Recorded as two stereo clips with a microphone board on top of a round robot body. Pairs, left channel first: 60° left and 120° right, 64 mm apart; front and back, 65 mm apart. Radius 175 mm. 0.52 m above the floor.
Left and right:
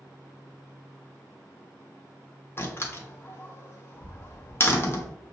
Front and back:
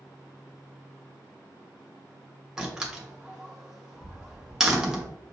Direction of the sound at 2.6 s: 100° left.